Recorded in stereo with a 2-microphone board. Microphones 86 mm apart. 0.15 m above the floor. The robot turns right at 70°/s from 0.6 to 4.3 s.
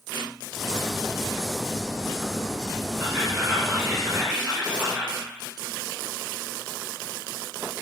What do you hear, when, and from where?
3.0 s whispering: 15° right (ahead or behind), 1.3 m; by 5.2 s 20° right (ahead or behind), 1.3 m